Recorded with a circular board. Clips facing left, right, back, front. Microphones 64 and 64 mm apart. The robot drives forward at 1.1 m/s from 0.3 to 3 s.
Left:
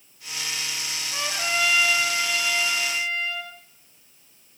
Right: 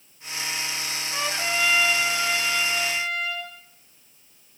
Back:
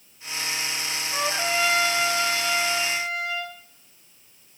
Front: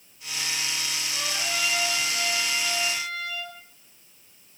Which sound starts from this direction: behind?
A trumpet, at 1.1 s.